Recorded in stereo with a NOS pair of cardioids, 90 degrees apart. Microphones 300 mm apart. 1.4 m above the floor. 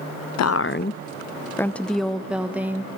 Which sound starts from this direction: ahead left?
A woman speaking, at 0.4 s.